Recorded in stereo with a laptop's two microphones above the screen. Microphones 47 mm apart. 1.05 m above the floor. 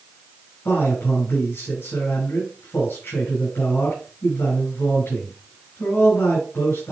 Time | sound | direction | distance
0.7 | a man speaking | 55° left (ahead or behind) | 5.5 m